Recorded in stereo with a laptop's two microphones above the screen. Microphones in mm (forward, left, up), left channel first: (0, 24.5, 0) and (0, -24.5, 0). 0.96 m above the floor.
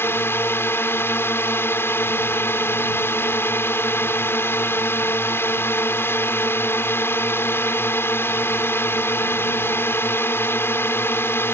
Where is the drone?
55° left (ahead or behind).